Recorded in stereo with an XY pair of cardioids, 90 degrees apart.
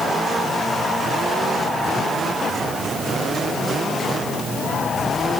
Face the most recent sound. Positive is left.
No sound to turn to.